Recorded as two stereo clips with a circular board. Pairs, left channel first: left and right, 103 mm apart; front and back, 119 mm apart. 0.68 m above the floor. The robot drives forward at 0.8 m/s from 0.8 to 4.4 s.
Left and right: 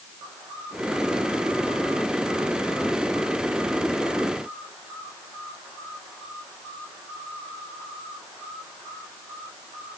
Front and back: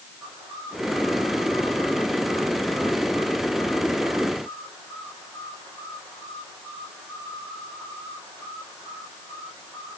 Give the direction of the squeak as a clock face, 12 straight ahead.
No squeak in this recording.